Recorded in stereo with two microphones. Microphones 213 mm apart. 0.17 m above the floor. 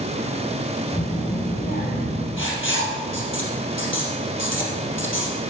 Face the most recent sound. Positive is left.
turn(degrees=70)  # may be behind; listen again after turning